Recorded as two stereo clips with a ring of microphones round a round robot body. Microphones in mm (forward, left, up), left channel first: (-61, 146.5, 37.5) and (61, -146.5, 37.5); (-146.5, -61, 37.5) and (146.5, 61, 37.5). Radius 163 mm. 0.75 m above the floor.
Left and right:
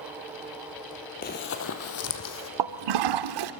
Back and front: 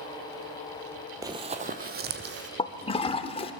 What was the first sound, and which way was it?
Running footsteps, 90° left.